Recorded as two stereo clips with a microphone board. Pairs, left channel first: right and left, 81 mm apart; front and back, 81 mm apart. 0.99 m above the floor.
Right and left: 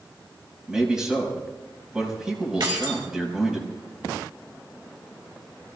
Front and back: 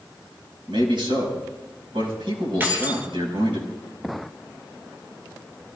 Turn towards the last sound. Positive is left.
turn(degrees=115)